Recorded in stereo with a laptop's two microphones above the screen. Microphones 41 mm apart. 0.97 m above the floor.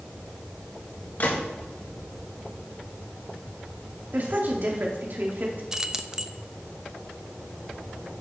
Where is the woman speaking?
55° right (ahead or behind), 2.5 m.